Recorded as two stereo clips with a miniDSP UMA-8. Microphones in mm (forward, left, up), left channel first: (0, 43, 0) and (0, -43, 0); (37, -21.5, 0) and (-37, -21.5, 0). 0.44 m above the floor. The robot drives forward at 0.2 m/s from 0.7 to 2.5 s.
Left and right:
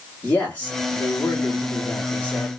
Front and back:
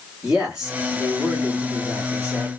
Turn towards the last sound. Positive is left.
turn(degrees=155)